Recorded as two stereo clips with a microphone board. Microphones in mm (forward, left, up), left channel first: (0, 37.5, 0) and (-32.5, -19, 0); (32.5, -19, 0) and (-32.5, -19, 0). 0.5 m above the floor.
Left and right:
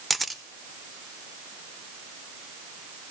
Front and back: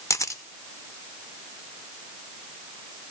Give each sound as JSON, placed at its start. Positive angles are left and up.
{"t": 0.1, "sound": "a camera shutter", "azimuth_deg": -30, "distance_m": 0.7}